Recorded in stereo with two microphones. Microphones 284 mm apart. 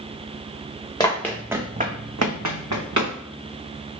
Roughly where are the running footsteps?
Centre.